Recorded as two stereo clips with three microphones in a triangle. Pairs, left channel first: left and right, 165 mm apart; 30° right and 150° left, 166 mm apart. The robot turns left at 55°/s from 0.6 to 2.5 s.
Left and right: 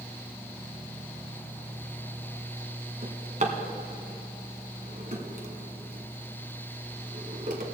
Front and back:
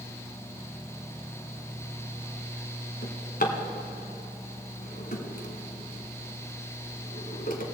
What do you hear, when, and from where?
3.0 s a drawer: 50° right, 1.4 m